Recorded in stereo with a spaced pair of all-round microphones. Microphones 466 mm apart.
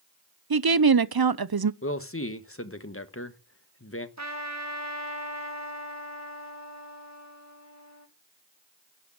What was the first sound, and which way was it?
A woman speaking, 55° right (ahead or behind).